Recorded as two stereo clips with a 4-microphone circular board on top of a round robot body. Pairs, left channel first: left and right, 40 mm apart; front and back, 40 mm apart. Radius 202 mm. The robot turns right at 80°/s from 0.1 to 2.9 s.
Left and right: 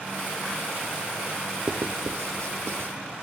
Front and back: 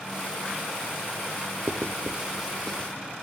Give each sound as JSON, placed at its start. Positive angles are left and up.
{"t": 1.7, "sound": "writing", "azimuth_deg": -155, "distance_m": 0.5}